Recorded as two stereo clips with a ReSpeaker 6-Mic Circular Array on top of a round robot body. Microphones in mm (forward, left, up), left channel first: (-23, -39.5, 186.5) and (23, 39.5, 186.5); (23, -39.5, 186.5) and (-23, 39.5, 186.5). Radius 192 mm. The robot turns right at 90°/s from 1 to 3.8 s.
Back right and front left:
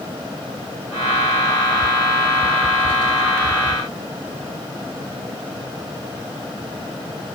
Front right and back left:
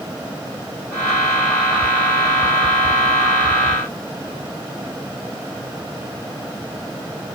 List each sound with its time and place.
Only background noise.